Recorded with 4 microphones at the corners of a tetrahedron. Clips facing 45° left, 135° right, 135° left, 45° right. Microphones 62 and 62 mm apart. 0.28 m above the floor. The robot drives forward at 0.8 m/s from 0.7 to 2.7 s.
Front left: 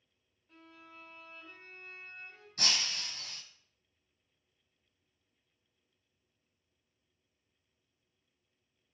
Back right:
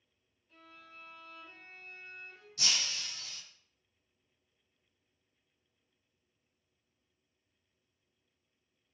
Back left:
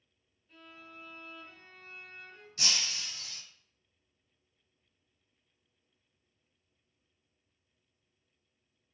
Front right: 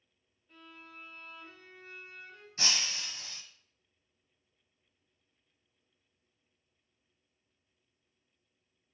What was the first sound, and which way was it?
A violin, 15° left.